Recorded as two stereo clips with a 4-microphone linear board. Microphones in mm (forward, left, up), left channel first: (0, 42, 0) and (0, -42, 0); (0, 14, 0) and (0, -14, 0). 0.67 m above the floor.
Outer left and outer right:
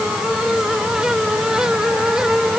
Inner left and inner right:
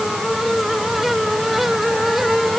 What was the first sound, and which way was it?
Only background noise.